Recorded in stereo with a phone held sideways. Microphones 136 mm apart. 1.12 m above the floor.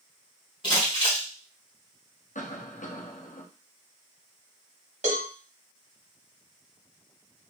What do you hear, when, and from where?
0.6 s crumpling: 40° left (ahead or behind), 1.4 m
2.4 s a cough: 70° left (ahead or behind), 0.8 m
5.0 s a cowbell: 60° right (ahead or behind), 1.3 m